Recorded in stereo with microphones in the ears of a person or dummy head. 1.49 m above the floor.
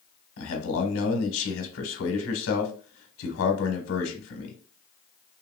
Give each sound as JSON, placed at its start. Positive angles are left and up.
{"t": 0.4, "sound": "a man speaking", "side_deg": 80, "distance_m": 1.0}